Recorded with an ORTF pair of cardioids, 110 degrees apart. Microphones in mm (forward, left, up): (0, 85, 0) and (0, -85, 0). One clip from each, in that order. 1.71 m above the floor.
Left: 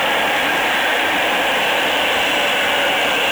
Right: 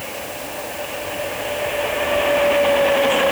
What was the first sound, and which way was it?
Only background noise.